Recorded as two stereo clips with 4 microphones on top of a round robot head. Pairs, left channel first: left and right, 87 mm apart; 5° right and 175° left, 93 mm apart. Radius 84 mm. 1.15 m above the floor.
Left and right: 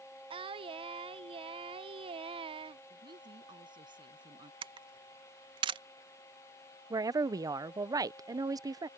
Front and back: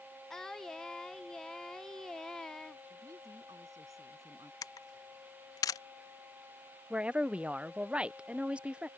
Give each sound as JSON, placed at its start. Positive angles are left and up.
{"t": 0.3, "sound": "singing", "azimuth_deg": -90}
{"t": 2.9, "sound": "a woman speaking", "azimuth_deg": -120}
{"t": 4.6, "sound": "a camera shutter", "azimuth_deg": -60}
{"t": 6.9, "sound": "a woman speaking", "azimuth_deg": -110}